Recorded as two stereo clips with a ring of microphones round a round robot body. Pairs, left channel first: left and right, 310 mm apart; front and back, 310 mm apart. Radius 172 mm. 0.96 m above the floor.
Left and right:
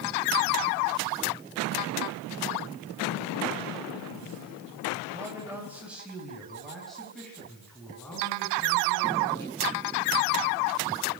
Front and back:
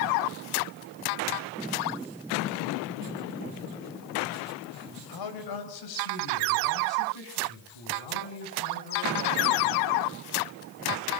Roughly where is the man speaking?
Ahead.